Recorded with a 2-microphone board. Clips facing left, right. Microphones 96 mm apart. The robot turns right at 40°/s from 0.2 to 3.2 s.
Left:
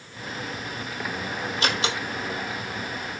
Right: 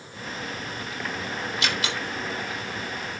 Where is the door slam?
40° left (ahead or behind), 3.5 m; by 3.2 s 25° right (ahead or behind), 3.5 m.